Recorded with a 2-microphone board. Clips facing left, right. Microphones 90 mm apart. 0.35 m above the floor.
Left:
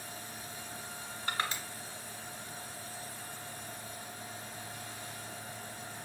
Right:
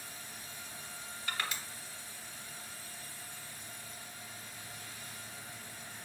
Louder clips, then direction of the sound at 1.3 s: Left 3 dB; 35° left (ahead or behind).